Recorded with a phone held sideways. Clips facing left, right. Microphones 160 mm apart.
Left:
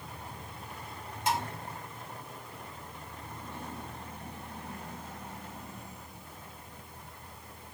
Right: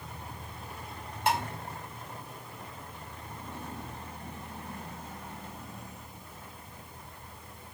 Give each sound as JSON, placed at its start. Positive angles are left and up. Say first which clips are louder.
{"t": 1.3, "sound": "dishes clattering", "louder": "right 2 dB", "side_deg": -55, "distance_m": 1.1}